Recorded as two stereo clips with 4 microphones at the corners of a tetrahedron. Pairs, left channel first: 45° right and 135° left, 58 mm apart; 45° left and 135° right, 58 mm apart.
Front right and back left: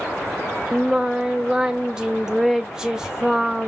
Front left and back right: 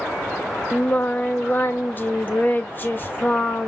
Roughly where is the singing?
Ahead left.